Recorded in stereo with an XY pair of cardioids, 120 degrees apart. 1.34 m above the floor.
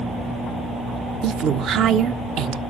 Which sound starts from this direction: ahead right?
A woman speaking, at 1.2 s.